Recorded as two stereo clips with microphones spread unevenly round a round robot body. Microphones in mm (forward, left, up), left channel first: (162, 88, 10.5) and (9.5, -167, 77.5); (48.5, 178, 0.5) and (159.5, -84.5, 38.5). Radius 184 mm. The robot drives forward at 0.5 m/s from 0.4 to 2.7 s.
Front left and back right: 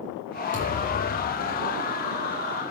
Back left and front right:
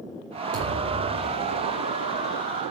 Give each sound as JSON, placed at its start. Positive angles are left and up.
{"t": 0.5, "sound": "a thud", "azimuth_deg": -70, "distance_m": 6.5}